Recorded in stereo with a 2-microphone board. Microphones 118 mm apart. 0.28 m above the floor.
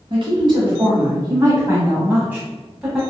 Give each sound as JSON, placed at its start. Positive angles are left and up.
{"t": 0.1, "sound": "a woman speaking", "side_deg": -50, "distance_m": 1.8}